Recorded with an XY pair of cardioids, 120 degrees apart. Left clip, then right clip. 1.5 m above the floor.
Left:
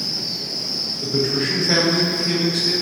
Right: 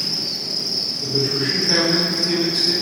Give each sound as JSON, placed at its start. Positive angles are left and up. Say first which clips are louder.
{"t": 0.0, "sound": "an insect", "louder": "right 1 dB", "azimuth_deg": -30, "distance_m": 0.8}
{"t": 1.0, "sound": "a man speaking", "louder": "left 1 dB", "azimuth_deg": 40, "distance_m": 1.0}